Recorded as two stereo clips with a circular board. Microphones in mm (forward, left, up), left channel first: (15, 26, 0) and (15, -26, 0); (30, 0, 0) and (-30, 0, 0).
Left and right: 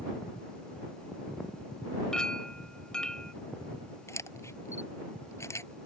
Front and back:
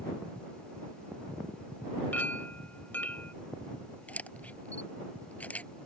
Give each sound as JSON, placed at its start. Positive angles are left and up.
{"t": 2.1, "sound": "a clink", "azimuth_deg": 30}
{"t": 4.1, "sound": "a camera shutter", "azimuth_deg": 65}